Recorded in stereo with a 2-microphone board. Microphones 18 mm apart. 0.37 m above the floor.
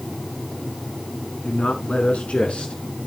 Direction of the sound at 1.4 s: 70° left (ahead or behind).